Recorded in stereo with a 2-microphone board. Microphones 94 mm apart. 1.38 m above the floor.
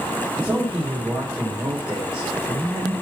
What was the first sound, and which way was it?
A man speaking, centre (ahead or behind).